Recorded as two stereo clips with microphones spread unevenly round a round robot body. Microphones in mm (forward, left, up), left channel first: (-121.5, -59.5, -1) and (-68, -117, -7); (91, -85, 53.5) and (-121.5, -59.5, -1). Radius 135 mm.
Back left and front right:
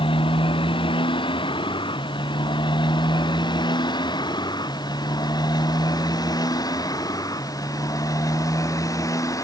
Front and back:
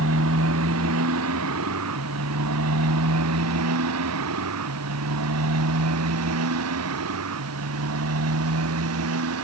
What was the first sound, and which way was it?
A motorcycle, 135° left.